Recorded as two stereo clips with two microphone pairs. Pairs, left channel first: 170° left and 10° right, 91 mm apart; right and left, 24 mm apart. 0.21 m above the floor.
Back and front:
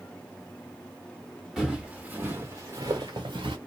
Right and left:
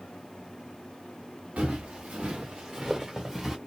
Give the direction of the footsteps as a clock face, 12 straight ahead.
9 o'clock.